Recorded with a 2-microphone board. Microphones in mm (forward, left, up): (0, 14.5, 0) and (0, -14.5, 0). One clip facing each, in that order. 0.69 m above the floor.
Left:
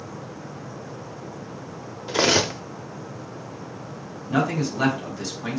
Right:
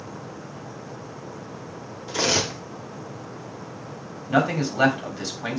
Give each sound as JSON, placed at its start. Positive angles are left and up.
{"t": 2.1, "sound": "cutlery clinking", "side_deg": 30, "distance_m": 0.6}
{"t": 4.3, "sound": "a man speaking", "side_deg": -20, "distance_m": 1.7}